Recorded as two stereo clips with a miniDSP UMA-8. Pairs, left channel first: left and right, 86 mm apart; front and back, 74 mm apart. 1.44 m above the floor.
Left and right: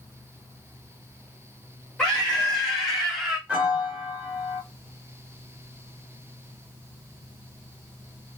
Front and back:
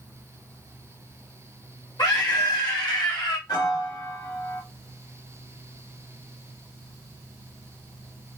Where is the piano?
15° right, 2 m.